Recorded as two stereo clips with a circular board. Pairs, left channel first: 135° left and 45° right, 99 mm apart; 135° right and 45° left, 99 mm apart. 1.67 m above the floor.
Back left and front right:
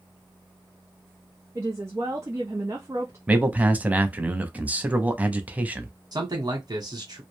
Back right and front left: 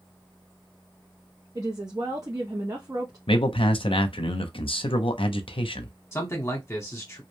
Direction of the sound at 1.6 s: 5° left.